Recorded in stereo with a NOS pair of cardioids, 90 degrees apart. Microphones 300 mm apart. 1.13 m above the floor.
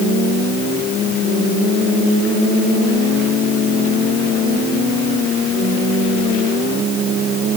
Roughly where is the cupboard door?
I don't hear a cupboard door.